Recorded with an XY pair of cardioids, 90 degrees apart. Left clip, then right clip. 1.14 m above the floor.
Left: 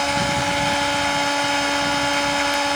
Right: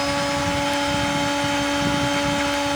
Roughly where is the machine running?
Ahead left.